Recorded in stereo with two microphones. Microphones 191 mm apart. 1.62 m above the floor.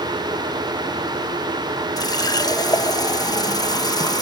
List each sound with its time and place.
2.0 s a running tap: 20° left (ahead or behind)